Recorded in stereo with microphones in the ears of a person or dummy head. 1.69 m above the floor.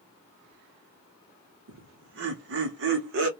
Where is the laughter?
70° right (ahead or behind), 0.9 m.